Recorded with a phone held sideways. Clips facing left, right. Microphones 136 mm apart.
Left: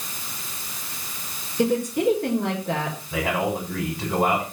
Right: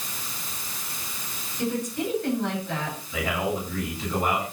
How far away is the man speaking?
About 6 m.